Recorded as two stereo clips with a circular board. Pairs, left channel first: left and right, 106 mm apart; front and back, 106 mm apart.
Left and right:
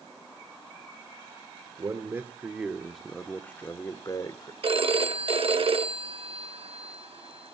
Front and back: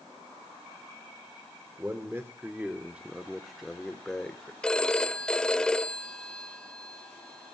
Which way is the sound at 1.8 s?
130° right.